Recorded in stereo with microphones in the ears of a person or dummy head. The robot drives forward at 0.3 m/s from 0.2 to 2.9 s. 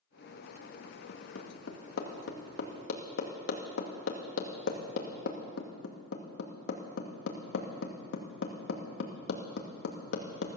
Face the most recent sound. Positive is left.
turn(degrees=70)  # may be behind; listen again after turning